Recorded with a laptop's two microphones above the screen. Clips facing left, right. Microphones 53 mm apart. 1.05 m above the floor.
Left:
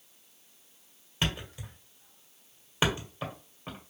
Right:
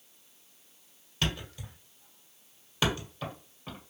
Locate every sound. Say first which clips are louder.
1.2 s a thud: left 1 dB; 25° left (ahead or behind), 1.6 m